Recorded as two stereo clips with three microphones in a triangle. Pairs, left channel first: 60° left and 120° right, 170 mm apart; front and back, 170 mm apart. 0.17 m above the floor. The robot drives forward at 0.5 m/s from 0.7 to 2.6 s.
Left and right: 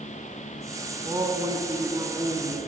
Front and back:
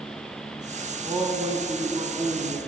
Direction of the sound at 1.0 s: 145° right.